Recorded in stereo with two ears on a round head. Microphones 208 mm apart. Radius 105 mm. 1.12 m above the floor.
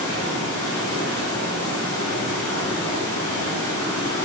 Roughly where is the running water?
Left.